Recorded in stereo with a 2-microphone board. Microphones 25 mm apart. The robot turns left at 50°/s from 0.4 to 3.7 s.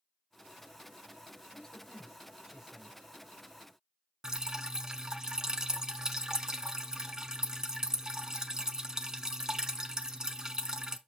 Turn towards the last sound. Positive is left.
turn(degrees=-25)  # may be behind; listen again after turning